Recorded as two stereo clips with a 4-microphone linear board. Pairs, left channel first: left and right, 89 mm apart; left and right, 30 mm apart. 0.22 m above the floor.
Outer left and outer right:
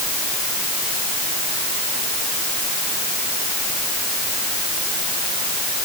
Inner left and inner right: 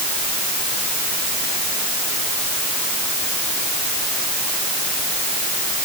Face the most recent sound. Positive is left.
No sound to turn to.